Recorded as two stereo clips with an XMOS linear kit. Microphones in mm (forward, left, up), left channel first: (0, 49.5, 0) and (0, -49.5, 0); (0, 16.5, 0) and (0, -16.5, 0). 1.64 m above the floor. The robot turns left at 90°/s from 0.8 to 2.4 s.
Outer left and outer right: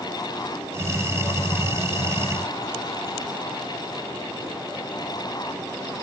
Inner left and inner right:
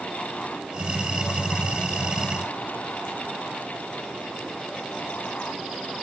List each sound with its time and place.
Only background noise.